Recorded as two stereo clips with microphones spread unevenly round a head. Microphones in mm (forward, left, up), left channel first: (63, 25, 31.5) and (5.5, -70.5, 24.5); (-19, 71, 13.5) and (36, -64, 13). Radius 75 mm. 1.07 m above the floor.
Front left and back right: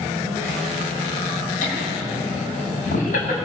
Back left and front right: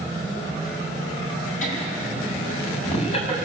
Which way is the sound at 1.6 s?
75° left.